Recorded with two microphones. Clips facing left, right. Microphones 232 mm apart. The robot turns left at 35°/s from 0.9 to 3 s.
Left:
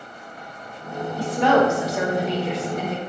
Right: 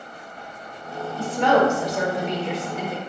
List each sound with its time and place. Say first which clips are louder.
1.2 s a woman speaking: left 1 dB; 15° left (ahead or behind), 1.0 m; by 3.0 s 5° right (ahead or behind), 1.0 m